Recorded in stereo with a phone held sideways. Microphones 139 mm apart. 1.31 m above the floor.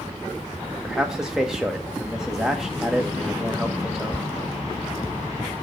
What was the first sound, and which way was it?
A man speaking, 5° right (ahead or behind).